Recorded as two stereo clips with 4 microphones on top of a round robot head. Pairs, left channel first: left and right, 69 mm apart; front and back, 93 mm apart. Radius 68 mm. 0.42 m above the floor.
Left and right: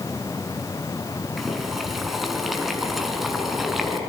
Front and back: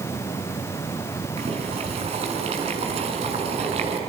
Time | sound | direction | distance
1.4 | boiling | 175° right | 5.5 m